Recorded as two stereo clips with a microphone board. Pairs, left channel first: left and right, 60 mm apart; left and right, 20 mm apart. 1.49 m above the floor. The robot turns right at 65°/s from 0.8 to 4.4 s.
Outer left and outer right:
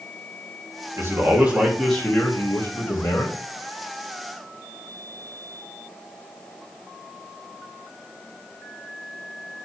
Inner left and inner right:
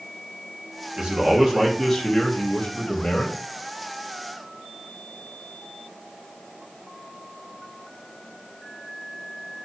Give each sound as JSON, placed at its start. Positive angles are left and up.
{"t": 1.0, "sound": "a man speaking", "azimuth_deg": -55, "distance_m": 3.0}